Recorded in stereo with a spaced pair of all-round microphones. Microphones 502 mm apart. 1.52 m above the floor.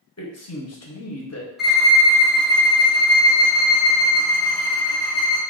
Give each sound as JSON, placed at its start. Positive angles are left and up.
{"t": 0.2, "sound": "a man speaking", "side_deg": 30, "distance_m": 0.6}
{"t": 1.6, "sound": "a violin", "side_deg": 0, "distance_m": 0.8}